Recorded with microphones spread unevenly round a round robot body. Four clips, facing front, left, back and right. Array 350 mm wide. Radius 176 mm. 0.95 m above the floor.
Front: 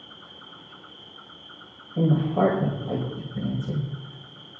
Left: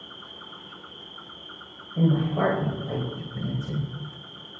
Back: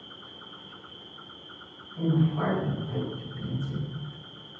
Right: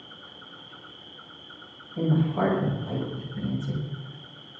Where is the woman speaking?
15° left, 4.5 m.